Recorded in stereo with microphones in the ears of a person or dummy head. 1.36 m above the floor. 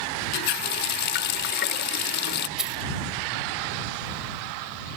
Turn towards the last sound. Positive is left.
turn(degrees=-5)  # may be behind; listen again after turning